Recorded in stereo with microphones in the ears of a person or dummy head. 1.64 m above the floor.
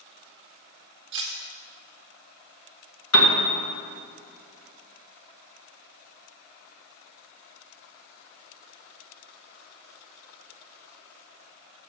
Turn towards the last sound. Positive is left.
turn(degrees=85)